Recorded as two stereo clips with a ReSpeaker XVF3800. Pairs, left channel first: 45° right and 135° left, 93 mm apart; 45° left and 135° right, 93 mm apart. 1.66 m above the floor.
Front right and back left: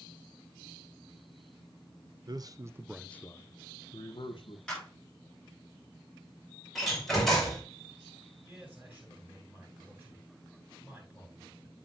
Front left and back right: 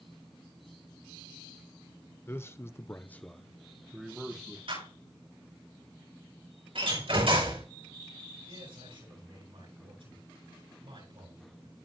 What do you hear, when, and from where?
2.3 s a man speaking: 105° left, 0.9 m; by 4.6 s 55° right, 1.6 m
4.7 s a clap: 130° right, 8 m
6.8 s a door slam: 130° right, 6 m
8.4 s a man speaking: 155° right, 9 m